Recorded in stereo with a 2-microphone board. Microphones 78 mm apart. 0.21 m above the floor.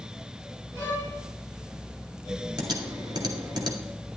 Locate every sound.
0.8 s a violin: 50° right (ahead or behind), 6 m
2.6 s typing on a keyboard: 60° right (ahead or behind), 1.9 m